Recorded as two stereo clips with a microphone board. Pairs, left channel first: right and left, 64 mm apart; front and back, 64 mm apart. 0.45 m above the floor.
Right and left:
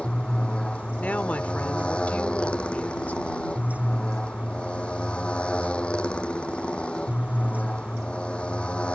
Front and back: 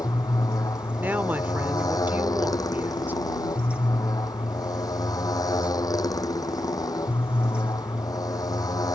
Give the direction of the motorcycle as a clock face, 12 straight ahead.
1 o'clock.